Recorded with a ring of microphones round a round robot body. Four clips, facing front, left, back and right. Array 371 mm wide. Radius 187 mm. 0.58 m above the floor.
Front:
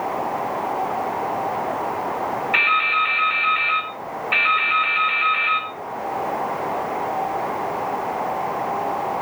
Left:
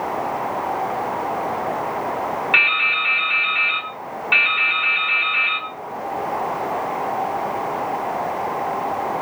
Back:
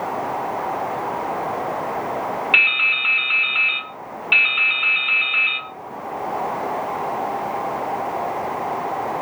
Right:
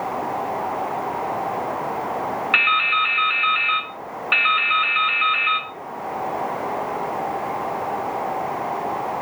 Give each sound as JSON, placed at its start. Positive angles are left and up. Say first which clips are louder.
{"t": 2.5, "sound": "dripping", "louder": "right 2 dB, front 4 dB", "azimuth_deg": -160, "distance_m": 0.9}